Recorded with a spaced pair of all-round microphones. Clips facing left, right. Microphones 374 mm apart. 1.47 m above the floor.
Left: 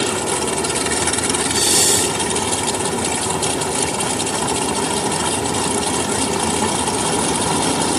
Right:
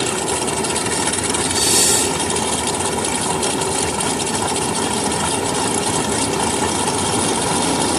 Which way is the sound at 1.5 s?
20° right (ahead or behind).